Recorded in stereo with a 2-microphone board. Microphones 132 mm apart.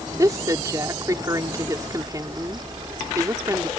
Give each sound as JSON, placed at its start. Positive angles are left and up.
{"t": 0.2, "sound": "a woman speaking", "side_deg": -25}